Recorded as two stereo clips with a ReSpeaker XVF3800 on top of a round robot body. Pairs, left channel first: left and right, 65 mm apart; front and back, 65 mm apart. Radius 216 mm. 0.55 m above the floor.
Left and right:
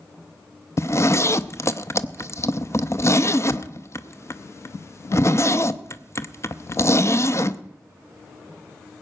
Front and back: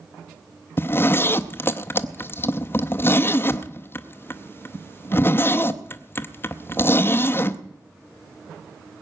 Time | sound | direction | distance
0.8 | a zipper | 50° left | 0.8 m